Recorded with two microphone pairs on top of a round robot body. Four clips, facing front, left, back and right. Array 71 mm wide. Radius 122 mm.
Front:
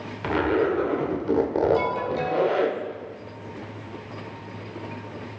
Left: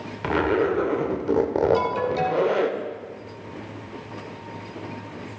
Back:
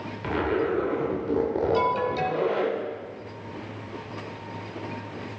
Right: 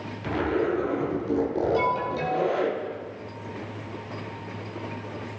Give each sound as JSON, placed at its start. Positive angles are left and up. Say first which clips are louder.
{"t": 0.2, "sound": "a zipper", "louder": "left 4 dB, front 3 dB", "azimuth_deg": 70, "distance_m": 1.5}
{"t": 1.7, "sound": "an alarm", "louder": "left 2 dB, back 1 dB", "azimuth_deg": 110, "distance_m": 2.0}